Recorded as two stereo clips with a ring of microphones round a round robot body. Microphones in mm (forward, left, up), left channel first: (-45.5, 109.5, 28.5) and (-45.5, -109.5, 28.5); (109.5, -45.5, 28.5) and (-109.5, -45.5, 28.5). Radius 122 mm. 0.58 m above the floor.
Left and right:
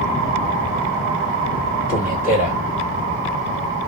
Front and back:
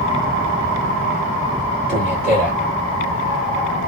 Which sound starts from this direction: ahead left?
A man speaking, at 1.9 s.